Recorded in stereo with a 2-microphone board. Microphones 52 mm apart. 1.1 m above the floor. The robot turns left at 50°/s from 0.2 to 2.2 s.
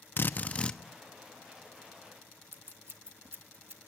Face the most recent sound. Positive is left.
turn(degrees=-45)  # may be behind; listen again after turning